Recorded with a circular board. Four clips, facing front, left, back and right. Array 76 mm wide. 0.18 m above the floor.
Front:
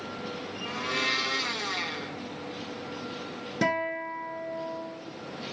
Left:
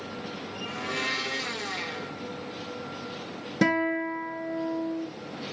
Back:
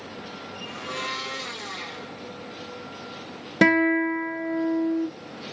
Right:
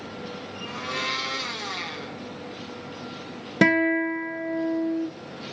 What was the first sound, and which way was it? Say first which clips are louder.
A blender: right 1 dB, front 2 dB; 40° right.